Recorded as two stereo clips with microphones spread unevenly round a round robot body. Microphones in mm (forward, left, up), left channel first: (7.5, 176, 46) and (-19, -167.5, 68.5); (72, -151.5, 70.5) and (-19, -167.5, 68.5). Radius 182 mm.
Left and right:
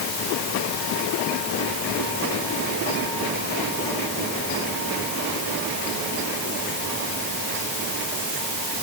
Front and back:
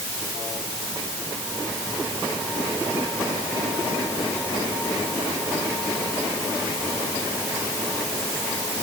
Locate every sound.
Only background noise.